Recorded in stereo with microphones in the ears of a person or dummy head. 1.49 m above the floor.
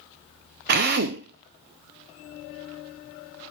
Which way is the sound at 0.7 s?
45° right (ahead or behind).